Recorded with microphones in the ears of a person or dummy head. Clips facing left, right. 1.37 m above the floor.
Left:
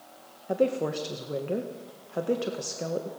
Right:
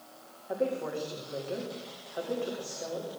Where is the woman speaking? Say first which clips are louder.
Left 5 dB; 65° left (ahead or behind), 1.5 m.